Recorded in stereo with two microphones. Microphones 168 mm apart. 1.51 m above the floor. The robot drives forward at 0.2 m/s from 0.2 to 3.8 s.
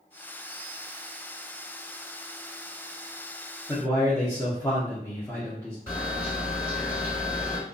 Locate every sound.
3.7 s a man speaking: 15° left (ahead or behind), 0.6 m; by 5.8 s 10° left (ahead or behind), 0.6 m
5.9 s a camera shutter: 20° left (ahead or behind), 2.0 m